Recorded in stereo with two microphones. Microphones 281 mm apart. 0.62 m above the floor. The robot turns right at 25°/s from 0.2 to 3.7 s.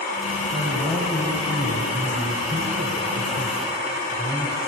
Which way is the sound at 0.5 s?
155° right.